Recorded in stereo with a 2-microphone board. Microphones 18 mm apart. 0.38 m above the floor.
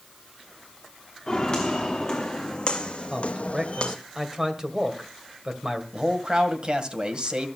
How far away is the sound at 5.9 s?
About 1.9 m.